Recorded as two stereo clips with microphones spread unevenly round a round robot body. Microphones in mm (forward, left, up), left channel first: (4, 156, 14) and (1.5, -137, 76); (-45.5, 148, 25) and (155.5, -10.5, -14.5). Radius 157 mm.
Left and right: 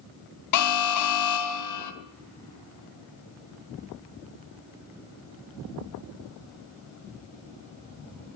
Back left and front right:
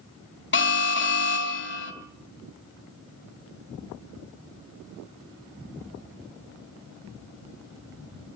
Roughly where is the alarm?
Left.